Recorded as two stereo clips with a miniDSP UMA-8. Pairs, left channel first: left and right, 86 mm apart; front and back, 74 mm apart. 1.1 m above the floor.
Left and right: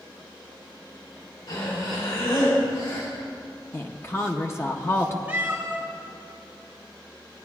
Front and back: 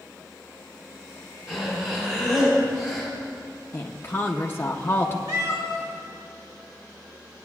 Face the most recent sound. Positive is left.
turn(degrees=-165)